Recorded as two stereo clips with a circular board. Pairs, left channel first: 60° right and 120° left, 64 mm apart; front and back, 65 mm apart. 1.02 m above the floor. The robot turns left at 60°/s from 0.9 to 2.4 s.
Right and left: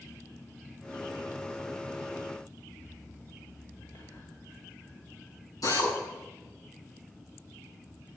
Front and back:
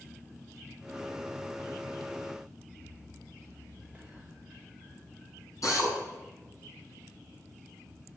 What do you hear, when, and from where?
3.9 s whispering: 85° right, 2.5 m
5.6 s a drill: 40° right, 7 m